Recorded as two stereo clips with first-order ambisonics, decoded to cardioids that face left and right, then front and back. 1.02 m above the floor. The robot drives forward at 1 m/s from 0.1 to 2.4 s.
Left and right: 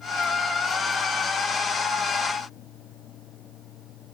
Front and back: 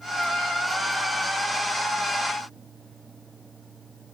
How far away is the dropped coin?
No dropped coin in this recording.